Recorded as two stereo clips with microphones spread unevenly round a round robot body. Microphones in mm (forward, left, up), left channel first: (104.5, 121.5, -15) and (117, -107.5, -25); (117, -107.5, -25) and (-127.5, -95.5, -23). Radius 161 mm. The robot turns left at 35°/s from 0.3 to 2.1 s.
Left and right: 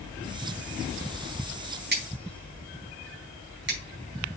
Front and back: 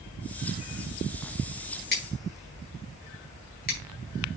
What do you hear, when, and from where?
1.9 s scissors: 45° right, 4.5 m; by 3.8 s 55° right, 4.5 m